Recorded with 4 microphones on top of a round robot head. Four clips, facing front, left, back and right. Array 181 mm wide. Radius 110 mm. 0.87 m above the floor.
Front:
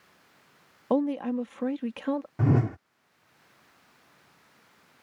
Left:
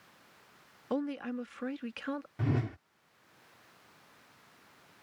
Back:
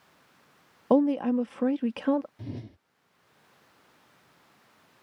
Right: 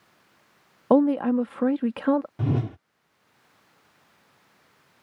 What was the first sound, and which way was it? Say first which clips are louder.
A woman speaking: right 15 dB, back 4 dB; 105° right.